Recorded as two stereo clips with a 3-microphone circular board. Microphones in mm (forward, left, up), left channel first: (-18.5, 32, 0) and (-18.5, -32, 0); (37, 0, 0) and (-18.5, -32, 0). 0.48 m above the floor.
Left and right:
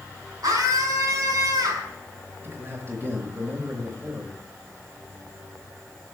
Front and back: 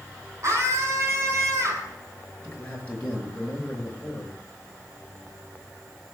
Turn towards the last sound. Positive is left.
turn(degrees=-35)